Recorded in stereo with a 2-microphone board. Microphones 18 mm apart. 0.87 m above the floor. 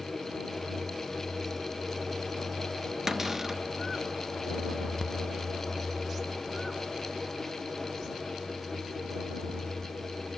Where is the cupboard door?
25° right (ahead or behind).